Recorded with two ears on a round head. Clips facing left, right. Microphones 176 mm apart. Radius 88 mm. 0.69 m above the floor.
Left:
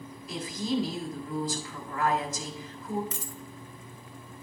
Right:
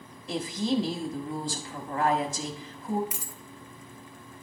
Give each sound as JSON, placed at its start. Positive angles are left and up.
{"t": 0.3, "sound": "a woman speaking", "side_deg": -25, "distance_m": 1.4}
{"t": 3.1, "sound": "a dropped coin", "side_deg": -10, "distance_m": 0.9}